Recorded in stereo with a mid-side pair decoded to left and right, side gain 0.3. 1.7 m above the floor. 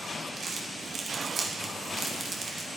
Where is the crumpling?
65° right, 1.6 m.